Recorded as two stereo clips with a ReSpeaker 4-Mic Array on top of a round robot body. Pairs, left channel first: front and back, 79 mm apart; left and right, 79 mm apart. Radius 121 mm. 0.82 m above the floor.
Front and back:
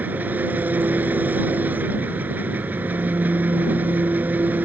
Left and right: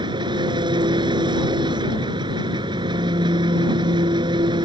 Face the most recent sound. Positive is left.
turn(degrees=-110)